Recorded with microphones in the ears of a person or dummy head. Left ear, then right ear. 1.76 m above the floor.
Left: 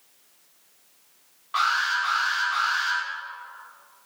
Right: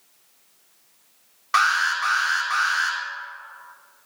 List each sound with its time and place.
1.5 s an alarm: 65° right (ahead or behind), 4 m